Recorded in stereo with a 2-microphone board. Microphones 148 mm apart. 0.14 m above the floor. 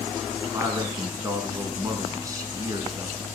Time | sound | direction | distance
0.5 | a man speaking | 25° right (ahead or behind) | 1.1 m